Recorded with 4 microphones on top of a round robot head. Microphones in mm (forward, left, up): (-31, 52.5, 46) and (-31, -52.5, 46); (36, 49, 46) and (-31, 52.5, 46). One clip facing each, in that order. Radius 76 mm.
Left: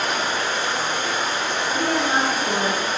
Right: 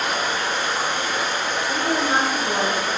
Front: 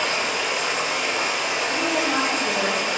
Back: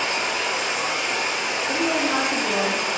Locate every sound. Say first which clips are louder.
0.0 s running water: even, even; 5° right, 0.8 m
1.7 s a woman speaking: even, back 2 dB; 175° left, 0.7 m